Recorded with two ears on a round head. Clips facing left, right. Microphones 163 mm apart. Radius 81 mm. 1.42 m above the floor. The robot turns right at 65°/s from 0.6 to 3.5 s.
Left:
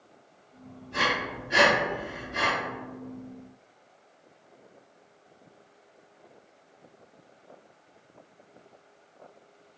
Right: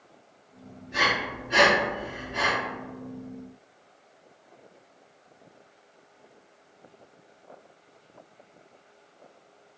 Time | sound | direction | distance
0.9 | breathing | 15° right (ahead or behind) | 1.9 m